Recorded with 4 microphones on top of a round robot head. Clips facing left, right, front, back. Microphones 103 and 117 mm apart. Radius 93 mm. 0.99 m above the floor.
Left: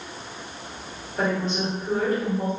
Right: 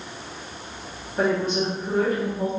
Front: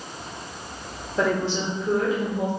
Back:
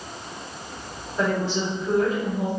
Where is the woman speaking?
5° right, 1.7 m.